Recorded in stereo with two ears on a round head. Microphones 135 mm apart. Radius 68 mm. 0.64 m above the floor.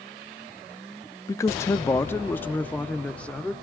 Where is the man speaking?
20° left (ahead or behind), 0.6 m; by 3.5 s 10° left (ahead or behind), 1.3 m.